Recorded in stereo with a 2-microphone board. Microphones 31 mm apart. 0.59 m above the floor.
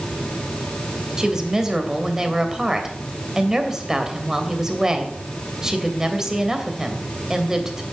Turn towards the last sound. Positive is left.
turn(degrees=-20)  # may be behind; listen again after turning